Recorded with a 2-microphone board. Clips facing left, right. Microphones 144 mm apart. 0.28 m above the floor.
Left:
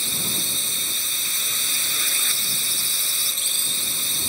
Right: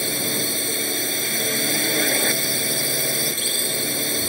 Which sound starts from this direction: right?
A drone, at 0.0 s.